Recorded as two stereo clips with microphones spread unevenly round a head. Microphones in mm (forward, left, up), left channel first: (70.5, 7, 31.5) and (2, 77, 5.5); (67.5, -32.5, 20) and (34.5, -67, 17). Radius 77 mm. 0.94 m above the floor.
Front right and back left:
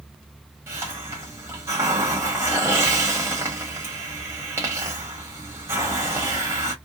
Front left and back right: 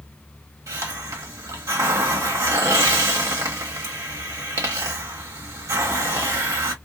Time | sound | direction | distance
0.7 | a hiss | 155° right | 0.9 m